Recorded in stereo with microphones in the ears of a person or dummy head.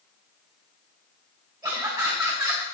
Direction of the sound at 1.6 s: 25° right (ahead or behind).